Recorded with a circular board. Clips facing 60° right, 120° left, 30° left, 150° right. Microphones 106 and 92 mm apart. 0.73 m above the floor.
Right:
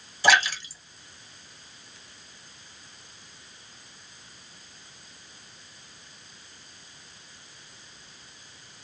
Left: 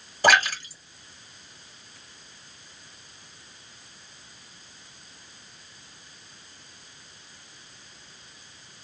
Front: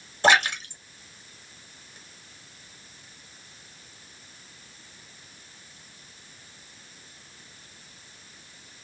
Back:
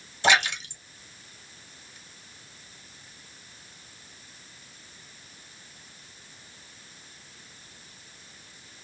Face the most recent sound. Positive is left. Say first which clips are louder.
# left 2 dB, front 3 dB
turn(degrees=80)